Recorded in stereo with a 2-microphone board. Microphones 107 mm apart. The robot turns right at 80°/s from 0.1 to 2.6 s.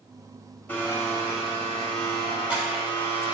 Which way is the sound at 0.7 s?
20° left (ahead or behind).